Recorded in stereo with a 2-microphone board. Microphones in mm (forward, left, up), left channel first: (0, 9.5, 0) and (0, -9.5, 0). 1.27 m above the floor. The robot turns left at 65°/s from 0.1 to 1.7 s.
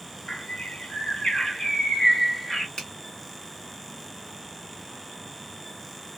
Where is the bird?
105° left, 0.9 m; by 2.7 s 15° left, 0.9 m.